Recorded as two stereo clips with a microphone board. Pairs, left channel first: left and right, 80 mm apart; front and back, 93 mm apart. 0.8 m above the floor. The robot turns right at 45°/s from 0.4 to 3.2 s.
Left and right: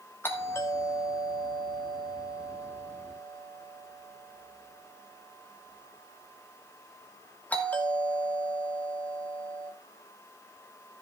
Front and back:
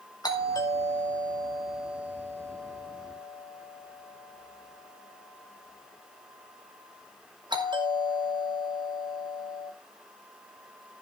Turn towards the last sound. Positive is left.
turn(degrees=160)